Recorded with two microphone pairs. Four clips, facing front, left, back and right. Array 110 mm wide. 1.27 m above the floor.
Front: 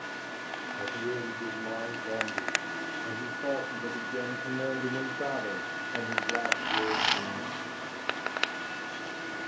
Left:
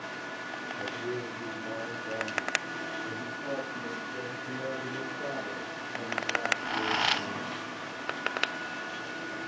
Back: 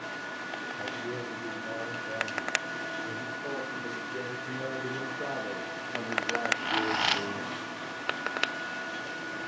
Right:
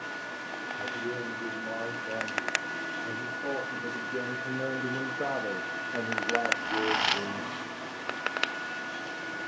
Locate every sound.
0.8 s a man speaking: straight ahead, 3.5 m; by 7.5 s 105° right, 2 m